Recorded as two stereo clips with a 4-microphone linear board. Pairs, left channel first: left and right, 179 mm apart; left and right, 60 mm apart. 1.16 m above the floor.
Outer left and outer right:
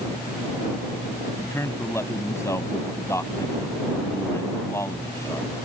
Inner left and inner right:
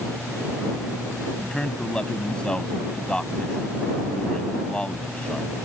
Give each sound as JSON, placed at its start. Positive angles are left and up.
{"t": 1.4, "sound": "a man speaking", "side_deg": 15}